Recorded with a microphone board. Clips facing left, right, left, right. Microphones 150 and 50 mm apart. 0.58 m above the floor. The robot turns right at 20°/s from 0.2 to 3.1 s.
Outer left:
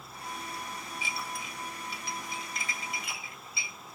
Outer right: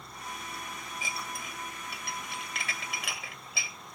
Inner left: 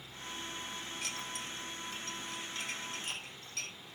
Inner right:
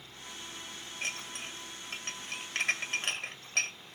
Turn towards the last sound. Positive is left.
turn(degrees=-75)  # may be behind; listen again after turning